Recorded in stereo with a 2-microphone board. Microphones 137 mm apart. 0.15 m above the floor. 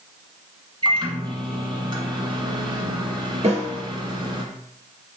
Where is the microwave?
40° right (ahead or behind), 1.1 m.